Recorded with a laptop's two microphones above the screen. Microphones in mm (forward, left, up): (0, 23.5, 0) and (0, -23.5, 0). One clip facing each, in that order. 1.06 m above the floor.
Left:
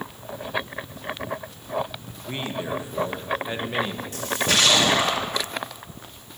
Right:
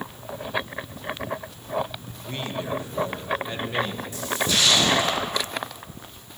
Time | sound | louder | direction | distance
2.3 | a man speaking | left 1 dB | 20° left (ahead or behind) | 1.0 m
4.1 | a splash | left 2 dB | 65° left (ahead or behind) | 2.5 m